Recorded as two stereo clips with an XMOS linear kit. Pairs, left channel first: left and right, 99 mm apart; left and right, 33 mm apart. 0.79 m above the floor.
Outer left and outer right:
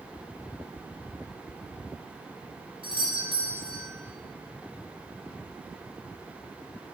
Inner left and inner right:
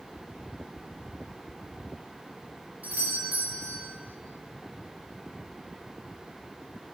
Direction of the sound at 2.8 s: 60° right (ahead or behind).